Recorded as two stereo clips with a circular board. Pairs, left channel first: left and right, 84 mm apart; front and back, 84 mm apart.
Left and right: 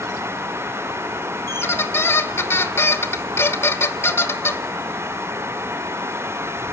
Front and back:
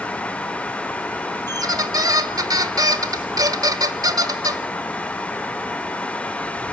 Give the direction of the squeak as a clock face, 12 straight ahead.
7 o'clock.